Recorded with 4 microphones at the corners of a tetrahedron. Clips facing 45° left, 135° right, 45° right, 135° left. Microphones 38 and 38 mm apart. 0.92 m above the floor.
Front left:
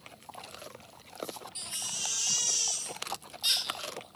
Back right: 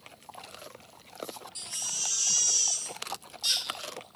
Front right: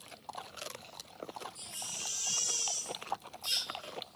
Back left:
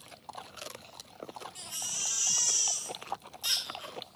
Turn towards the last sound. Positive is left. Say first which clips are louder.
# back right 2 dB, back left 4 dB
turn(degrees=115)